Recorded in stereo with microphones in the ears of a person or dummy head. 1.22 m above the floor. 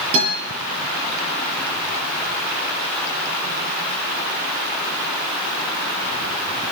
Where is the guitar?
35° right (ahead or behind), 8.5 m.